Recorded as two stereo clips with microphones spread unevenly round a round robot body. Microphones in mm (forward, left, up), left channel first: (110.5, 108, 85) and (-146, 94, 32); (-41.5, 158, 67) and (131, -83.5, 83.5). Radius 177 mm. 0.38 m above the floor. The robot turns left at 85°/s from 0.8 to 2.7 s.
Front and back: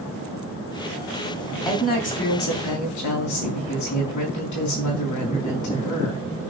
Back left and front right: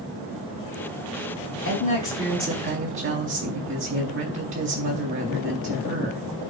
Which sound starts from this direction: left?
A woman speaking, at 1.6 s.